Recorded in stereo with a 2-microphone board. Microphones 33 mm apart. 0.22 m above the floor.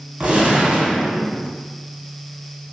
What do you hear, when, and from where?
0.2 s a gunshot: 30° right (ahead or behind), 0.9 m